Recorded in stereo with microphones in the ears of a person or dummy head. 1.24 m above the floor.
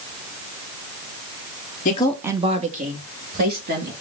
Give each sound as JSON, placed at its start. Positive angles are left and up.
{"t": 1.9, "sound": "a woman speaking", "side_deg": 40, "distance_m": 0.6}